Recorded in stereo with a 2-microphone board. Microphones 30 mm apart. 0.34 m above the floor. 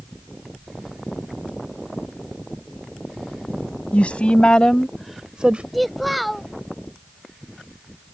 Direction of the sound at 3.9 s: 50° left (ahead or behind).